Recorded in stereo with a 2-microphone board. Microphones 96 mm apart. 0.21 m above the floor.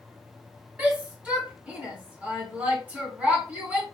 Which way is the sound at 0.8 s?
15° right (ahead or behind).